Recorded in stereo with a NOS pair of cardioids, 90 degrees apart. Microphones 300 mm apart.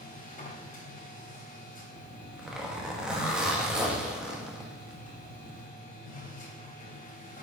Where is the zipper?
Straight ahead, 1.5 m.